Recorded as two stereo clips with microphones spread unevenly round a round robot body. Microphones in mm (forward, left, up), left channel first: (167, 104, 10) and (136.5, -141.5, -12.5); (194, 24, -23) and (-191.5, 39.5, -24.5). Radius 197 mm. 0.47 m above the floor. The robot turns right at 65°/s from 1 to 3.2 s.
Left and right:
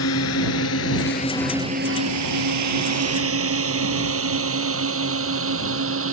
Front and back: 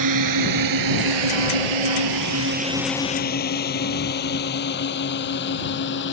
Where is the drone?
135° left; by 6.1 s 65° right.